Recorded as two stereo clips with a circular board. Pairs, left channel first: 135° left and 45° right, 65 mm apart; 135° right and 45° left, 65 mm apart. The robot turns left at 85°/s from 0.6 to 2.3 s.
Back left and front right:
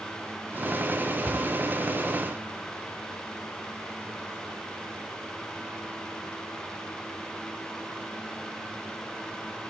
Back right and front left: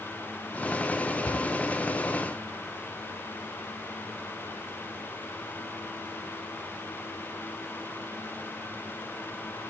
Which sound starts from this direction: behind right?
A cupboard door, at 1.2 s.